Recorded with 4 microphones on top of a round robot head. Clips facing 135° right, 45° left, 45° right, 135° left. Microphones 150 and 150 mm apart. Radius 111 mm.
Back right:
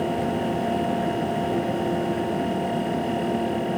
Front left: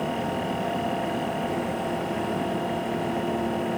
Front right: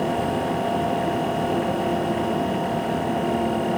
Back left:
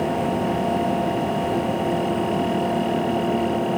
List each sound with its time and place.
Only background noise.